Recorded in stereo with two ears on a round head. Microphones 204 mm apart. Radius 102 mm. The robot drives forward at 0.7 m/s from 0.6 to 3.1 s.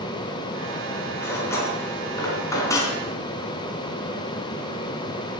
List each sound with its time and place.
1.2 s cutlery clinking: 10° left (ahead or behind), 4.5 m; by 3.0 s 15° left (ahead or behind), 3 m